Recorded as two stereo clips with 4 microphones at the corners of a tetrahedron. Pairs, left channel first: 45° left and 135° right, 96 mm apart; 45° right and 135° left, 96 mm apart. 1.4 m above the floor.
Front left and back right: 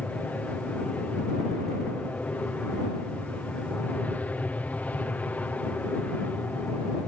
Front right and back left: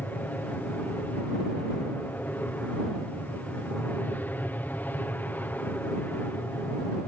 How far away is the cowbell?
No cowbell in this recording.